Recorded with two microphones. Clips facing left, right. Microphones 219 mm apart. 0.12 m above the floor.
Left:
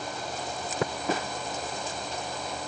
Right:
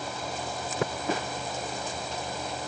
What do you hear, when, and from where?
Only background noise.